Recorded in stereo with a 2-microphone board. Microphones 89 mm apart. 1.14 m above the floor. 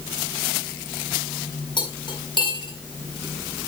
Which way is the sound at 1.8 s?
60° left (ahead or behind).